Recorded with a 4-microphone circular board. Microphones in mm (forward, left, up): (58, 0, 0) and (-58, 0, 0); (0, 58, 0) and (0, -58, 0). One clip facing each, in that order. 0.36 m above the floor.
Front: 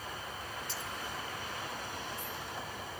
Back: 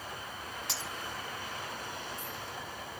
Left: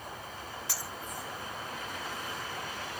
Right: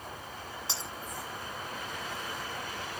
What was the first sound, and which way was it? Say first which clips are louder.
Breaking glass: back 1 dB, right 1 dB; 160° right.